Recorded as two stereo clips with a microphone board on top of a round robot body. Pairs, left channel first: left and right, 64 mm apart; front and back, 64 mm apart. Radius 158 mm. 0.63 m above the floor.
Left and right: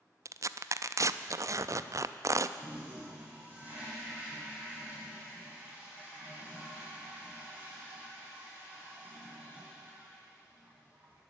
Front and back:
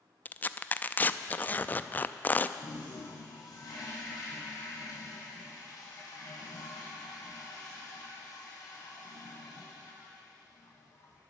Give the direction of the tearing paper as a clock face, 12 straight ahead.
2 o'clock.